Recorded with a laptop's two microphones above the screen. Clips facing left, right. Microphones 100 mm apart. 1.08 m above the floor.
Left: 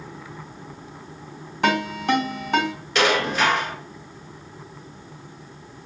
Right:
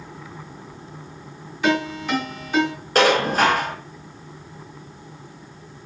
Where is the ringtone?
50° left (ahead or behind), 3.5 m.